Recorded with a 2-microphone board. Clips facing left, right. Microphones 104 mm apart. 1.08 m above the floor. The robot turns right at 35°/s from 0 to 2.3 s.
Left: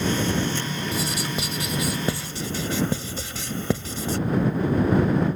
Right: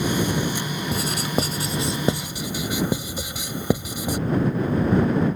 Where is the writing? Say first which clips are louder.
Right 6 dB; 60° right (ahead or behind); by 4.2 s 15° right (ahead or behind).